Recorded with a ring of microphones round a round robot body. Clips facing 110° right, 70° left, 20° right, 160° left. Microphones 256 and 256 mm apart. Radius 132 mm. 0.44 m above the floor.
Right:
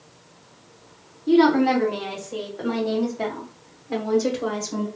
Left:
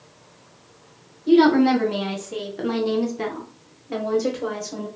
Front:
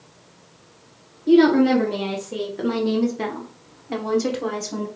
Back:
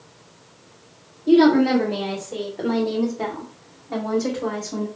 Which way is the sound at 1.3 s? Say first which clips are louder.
Left 2 dB, even; 65° left.